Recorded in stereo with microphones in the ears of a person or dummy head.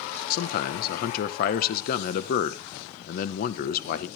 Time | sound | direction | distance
0.3 | a man speaking | 60° left (ahead or behind) | 1.0 m